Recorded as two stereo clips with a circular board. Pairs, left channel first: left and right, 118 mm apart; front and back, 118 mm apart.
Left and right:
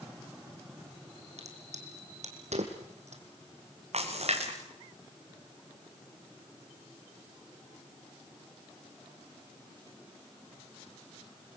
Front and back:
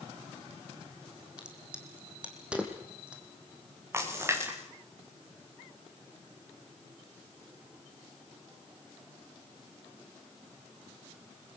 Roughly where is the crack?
Right.